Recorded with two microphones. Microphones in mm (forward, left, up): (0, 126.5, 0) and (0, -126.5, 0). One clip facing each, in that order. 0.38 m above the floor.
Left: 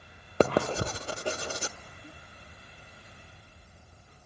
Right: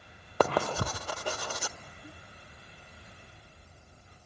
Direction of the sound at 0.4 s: 25° left (ahead or behind).